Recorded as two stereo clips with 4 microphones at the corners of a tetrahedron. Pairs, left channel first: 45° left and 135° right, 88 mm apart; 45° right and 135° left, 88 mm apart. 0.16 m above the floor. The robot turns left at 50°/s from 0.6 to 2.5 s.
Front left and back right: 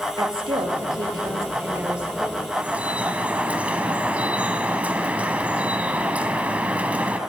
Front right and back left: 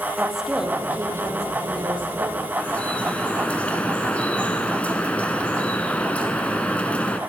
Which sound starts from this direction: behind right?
A woman speaking, at 0.2 s.